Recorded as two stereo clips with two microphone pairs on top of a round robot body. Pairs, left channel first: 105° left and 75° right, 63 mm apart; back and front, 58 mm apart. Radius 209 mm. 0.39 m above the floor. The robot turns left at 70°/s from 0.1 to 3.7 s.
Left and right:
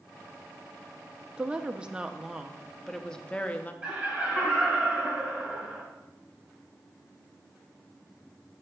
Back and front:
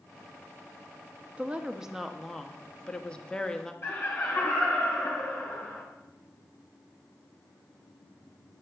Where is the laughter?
135° right, 3 m.